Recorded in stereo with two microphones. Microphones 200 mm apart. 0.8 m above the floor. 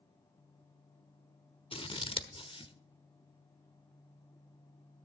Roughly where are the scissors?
Left.